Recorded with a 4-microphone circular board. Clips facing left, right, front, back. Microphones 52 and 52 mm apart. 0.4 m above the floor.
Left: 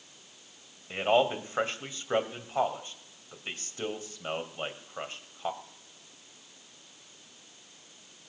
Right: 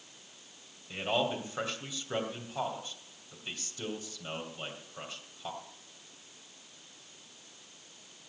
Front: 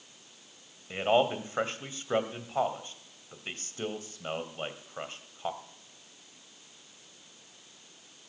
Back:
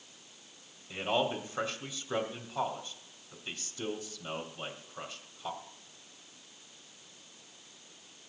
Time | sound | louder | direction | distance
0.9 | a man speaking | left 6 dB, front 5 dB | 45° left | 2 m